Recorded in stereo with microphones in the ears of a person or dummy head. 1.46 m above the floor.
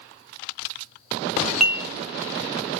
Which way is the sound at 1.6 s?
Centre (ahead or behind).